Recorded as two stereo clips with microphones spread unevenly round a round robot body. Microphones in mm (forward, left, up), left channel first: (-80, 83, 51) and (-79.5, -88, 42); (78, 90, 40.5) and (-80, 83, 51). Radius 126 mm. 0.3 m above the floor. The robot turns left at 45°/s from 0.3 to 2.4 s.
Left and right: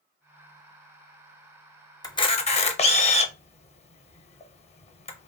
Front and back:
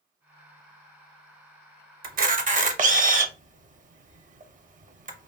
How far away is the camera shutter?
About 0.6 m.